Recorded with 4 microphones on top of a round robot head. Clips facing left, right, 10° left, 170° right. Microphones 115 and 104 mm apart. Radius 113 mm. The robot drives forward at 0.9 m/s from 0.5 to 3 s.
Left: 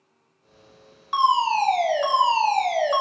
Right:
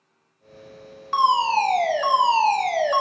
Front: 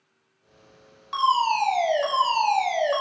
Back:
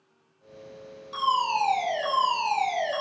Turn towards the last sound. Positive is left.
turn(degrees=20)